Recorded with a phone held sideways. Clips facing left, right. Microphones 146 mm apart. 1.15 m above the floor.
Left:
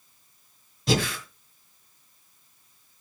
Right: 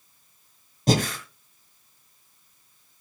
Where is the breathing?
45° right (ahead or behind), 2 m.